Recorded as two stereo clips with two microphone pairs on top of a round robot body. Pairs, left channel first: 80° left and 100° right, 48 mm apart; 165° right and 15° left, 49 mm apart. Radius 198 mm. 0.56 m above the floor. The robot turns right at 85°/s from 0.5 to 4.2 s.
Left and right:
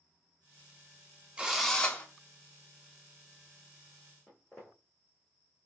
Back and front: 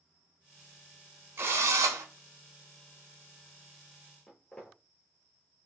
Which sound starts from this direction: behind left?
Footsteps, at 4.3 s.